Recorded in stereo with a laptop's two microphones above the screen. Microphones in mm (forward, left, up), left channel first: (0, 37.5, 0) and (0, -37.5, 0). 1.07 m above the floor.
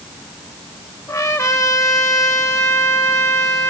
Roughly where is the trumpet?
Left.